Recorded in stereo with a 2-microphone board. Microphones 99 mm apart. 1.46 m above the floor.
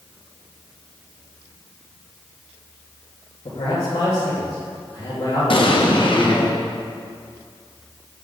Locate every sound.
3.5 s a man speaking: 40° left (ahead or behind), 1.8 m
5.5 s an explosion: 60° left (ahead or behind), 0.9 m